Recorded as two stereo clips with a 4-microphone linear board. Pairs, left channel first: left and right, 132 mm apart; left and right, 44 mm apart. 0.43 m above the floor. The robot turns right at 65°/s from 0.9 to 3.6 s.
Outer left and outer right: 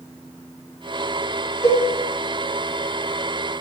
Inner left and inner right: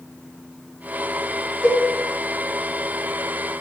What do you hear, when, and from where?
1.6 s a cowbell: 65° left (ahead or behind), 1.8 m